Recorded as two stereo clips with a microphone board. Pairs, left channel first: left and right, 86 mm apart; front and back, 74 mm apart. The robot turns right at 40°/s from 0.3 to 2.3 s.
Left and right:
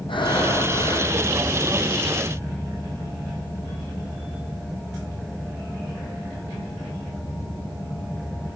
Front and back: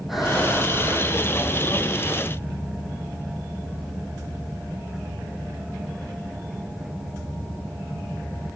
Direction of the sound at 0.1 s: 95° left.